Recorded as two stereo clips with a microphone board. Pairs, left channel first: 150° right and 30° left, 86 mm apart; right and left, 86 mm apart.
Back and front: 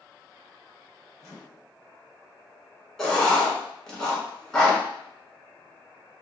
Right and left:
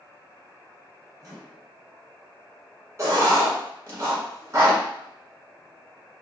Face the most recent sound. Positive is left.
turn(degrees=125)